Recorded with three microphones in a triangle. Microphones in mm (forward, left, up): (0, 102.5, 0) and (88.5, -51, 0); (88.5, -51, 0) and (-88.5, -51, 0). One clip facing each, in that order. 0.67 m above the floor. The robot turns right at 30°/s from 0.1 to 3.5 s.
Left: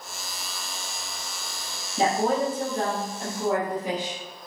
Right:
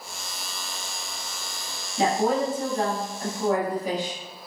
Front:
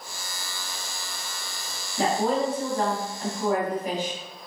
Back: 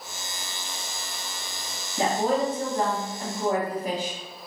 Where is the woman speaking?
130° left, 0.8 m; by 4.2 s 175° left, 0.8 m.